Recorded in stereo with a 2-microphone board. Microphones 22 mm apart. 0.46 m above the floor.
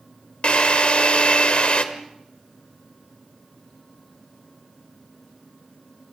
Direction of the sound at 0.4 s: 50° left (ahead or behind).